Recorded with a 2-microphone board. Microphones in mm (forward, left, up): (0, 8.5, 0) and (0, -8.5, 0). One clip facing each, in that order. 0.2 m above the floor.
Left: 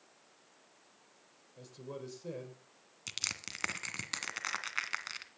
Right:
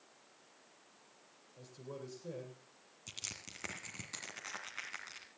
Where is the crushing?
50° left (ahead or behind), 2 m.